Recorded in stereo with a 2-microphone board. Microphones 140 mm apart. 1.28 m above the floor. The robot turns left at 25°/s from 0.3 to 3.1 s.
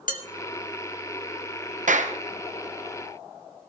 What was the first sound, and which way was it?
Dishes clattering, 75° left (ahead or behind).